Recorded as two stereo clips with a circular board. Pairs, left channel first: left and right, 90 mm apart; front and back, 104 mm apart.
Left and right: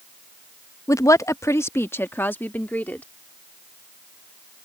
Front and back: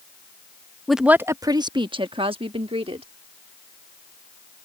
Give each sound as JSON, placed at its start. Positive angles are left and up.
{"t": 0.9, "sound": "a woman speaking", "azimuth_deg": 85}